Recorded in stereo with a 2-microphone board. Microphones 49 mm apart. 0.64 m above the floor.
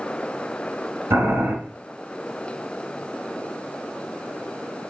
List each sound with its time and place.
1.1 s boiling: 65° right (ahead or behind), 3 m